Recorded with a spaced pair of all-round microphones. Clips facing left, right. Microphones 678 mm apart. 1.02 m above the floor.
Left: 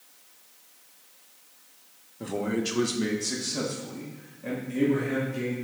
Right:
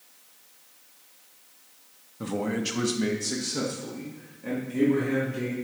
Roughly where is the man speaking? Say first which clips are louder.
Even; right.